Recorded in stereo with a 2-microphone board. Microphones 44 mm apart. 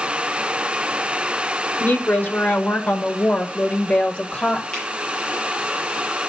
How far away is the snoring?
I don't hear snoring.